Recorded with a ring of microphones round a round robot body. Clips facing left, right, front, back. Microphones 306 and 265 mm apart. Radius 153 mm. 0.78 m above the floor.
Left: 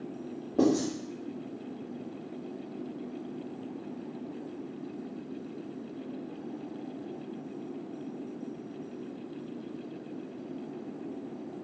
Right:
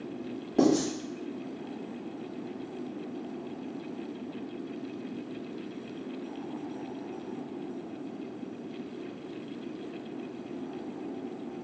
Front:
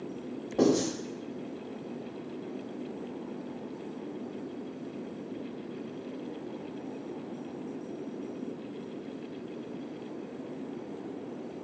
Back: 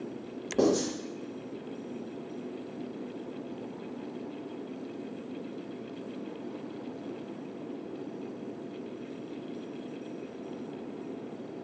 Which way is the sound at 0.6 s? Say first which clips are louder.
Right 1 dB, front 1 dB; 140° right.